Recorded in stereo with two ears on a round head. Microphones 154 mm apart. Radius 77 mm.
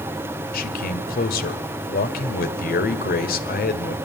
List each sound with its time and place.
0.5 s a man speaking: 60° left (ahead or behind), 2 m